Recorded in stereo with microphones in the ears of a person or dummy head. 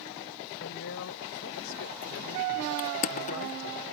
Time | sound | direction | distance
0.6 | a woman speaking | 75° left (ahead or behind) | ?
2.8 | crushing | 45° left (ahead or behind) | ?